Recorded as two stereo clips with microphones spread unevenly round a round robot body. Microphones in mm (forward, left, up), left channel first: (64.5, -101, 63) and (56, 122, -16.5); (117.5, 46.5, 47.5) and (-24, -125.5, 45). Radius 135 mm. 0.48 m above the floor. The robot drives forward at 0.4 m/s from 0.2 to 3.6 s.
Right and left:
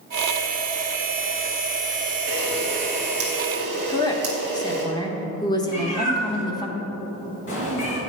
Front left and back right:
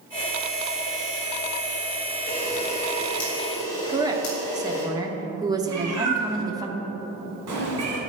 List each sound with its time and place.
2.3 s a camera shutter: 115° left, 2.5 m; by 4.8 s 125° left, 3 m
3.9 s a woman speaking: 175° left, 0.9 m
5.7 s a cat meowing: 140° right, 2.5 m